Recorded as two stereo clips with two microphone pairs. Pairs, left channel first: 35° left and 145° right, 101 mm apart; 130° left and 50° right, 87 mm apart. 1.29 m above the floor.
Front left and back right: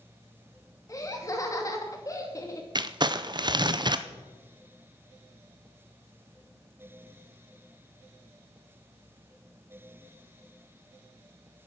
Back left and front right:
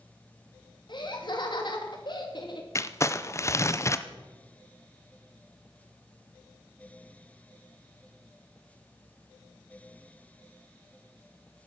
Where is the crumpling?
Straight behind, 0.6 m.